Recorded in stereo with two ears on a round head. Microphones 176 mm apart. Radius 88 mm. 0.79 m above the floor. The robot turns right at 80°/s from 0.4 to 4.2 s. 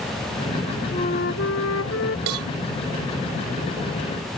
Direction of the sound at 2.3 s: 85° right.